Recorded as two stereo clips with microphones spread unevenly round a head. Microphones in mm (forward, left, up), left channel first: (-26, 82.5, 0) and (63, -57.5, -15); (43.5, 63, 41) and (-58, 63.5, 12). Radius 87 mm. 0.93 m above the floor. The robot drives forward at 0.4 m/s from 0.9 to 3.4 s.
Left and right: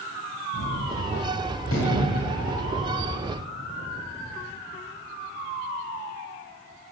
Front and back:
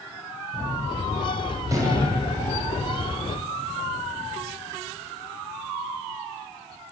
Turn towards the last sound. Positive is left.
turn(degrees=130)